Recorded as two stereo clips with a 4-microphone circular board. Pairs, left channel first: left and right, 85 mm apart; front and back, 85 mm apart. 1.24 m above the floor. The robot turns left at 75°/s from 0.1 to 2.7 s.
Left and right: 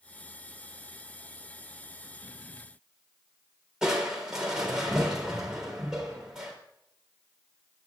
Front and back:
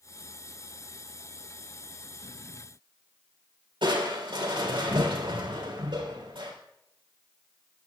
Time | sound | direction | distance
3.8 | crushing | 175° right | 4 m